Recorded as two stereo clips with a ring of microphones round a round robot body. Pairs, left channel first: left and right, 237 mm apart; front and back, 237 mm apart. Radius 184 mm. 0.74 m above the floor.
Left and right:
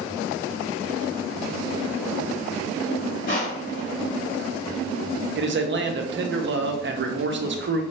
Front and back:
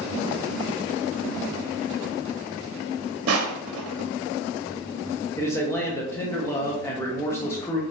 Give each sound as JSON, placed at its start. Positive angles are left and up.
{"t": 3.3, "sound": "crushing", "azimuth_deg": 155, "distance_m": 0.7}
{"t": 5.4, "sound": "a man speaking", "azimuth_deg": -75, "distance_m": 0.7}